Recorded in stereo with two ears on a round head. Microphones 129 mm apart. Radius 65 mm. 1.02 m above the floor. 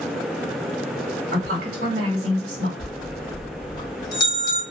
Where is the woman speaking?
65° right (ahead or behind), 1.3 m.